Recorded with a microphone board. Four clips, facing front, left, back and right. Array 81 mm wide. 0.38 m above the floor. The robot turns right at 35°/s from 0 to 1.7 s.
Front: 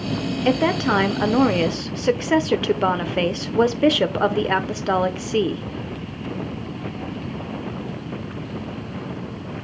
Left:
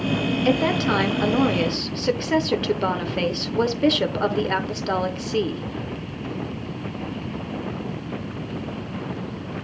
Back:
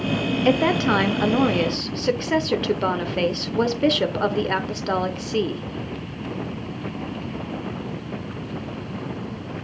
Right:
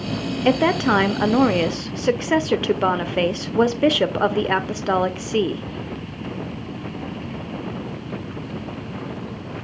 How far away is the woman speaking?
About 0.8 m.